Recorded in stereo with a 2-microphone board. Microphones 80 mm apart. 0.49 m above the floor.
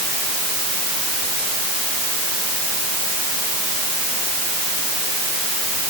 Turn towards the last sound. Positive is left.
No sound to turn to.